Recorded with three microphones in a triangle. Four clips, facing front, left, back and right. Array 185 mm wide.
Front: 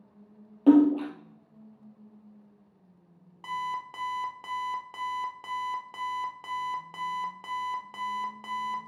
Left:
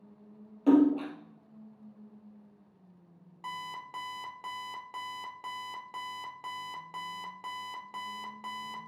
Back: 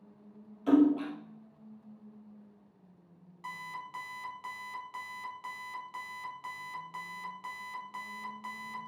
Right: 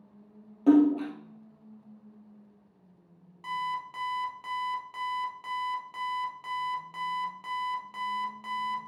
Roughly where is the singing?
I don't hear singing.